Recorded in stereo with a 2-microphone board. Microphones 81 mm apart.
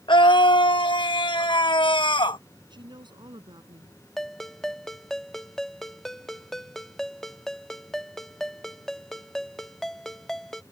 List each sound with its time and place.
0.1 s a scream: 70° left (ahead or behind)
2.7 s a woman speaking: 65° right (ahead or behind)
4.2 s a ringtone: 5° left (ahead or behind)